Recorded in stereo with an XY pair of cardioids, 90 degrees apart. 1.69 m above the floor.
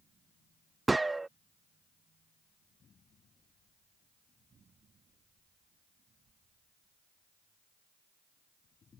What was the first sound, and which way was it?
A gunshot, 20° right.